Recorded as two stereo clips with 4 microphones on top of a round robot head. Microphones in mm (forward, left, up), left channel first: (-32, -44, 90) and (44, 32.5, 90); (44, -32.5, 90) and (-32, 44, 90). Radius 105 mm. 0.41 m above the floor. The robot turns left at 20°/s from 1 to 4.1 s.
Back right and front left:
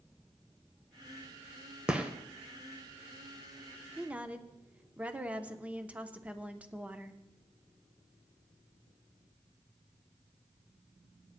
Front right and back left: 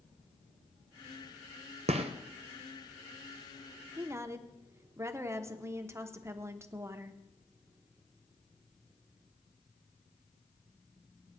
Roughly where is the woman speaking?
Left.